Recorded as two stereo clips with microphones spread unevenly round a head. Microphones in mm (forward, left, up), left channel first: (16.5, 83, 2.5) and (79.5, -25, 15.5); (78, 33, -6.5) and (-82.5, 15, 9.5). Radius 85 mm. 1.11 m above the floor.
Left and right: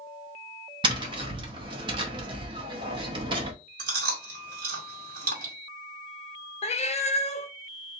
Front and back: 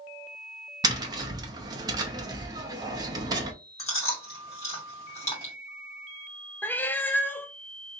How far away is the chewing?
About 2 m.